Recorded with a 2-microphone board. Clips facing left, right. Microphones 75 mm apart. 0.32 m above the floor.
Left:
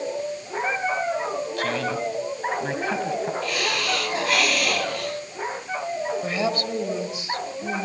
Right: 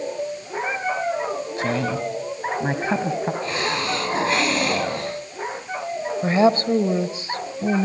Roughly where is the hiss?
Right.